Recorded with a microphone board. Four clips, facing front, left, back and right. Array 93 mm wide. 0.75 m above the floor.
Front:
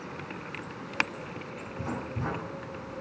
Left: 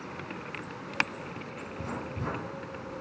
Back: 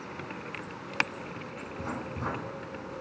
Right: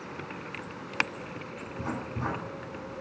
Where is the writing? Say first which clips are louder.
Right 3 dB, front 1 dB; 90° right, 2 m.